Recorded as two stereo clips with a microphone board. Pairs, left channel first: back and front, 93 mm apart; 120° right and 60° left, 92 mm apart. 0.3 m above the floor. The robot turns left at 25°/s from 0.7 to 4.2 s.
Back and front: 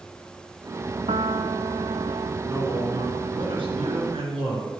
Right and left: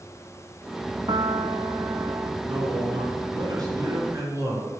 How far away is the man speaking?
About 4 m.